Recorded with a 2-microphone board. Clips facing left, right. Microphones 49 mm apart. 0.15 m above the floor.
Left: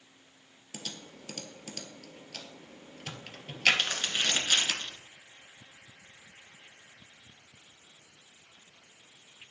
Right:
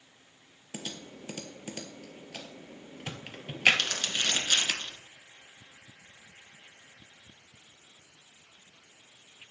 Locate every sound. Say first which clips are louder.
0.7 s typing on a keyboard: right 3 dB; 20° right (ahead or behind), 0.8 m
3.7 s crumpling: even; 15° left (ahead or behind), 1.9 m